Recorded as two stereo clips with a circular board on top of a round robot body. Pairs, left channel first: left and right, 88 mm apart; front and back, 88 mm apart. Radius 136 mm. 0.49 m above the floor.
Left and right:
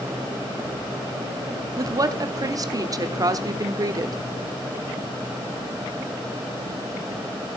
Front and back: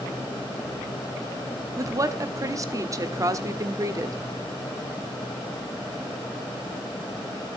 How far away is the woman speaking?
About 1.5 m.